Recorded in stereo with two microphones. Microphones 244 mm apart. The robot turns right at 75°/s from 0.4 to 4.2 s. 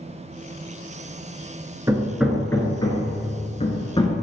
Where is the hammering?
15° right (ahead or behind), 0.9 m; by 4.1 s 15° left (ahead or behind), 0.9 m.